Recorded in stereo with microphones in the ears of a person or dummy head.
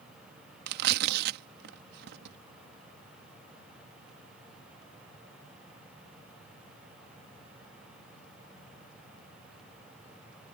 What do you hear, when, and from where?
0.7 s tearing paper: 60° right (ahead or behind)